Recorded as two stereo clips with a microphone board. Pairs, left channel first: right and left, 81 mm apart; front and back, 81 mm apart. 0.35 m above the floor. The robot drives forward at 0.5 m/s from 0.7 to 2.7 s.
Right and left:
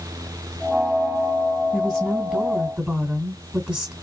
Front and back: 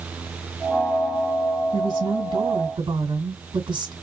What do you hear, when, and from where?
1.7 s a woman speaking: 160° left, 2.5 m; by 3.9 s 165° left, 3 m